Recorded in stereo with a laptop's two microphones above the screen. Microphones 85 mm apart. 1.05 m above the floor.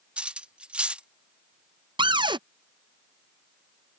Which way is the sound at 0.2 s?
10° right (ahead or behind).